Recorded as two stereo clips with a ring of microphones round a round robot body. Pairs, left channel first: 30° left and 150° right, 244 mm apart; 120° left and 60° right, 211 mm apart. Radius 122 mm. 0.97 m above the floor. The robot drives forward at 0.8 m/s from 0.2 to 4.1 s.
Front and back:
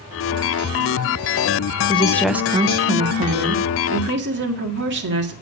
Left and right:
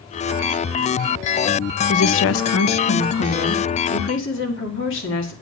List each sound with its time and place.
1.9 s a woman speaking: 90° left, 0.6 m; by 5.3 s 165° left, 1.9 m